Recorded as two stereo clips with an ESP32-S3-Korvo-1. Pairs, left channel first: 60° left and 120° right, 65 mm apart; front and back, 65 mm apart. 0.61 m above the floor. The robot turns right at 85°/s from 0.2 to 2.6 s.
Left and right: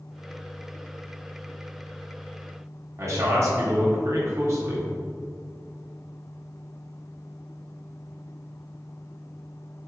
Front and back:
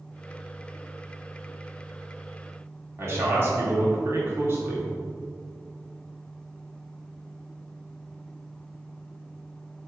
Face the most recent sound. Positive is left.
turn(degrees=-140)